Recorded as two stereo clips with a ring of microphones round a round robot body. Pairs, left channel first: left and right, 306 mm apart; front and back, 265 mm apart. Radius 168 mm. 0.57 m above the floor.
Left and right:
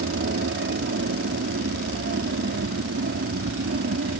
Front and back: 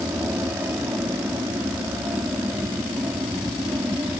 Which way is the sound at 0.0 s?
100° right.